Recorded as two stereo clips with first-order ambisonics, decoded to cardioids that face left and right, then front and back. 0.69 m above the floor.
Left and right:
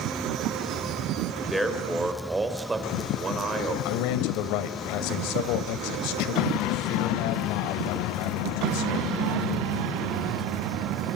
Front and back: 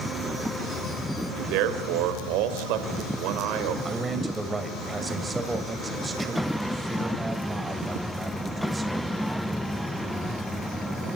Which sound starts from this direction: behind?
A man speaking, at 1.3 s.